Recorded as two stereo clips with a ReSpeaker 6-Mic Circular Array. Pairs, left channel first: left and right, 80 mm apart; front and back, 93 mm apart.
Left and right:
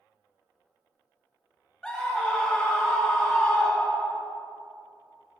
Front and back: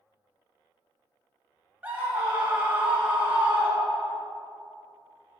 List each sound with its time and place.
1.8 s a scream: 155° left, 1.1 m